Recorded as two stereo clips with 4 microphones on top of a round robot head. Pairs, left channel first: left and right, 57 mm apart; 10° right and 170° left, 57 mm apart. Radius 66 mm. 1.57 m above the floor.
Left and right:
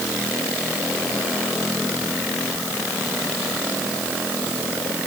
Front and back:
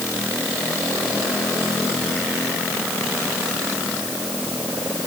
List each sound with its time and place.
Only background noise.